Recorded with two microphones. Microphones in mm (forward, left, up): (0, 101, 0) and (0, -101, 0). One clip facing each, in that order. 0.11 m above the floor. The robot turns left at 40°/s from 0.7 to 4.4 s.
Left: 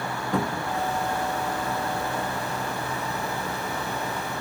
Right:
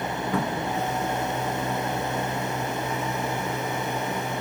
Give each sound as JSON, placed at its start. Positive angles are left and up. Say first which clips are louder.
{"t": 0.3, "sound": "a cupboard door", "louder": "left 1 dB", "side_deg": 0, "distance_m": 0.7}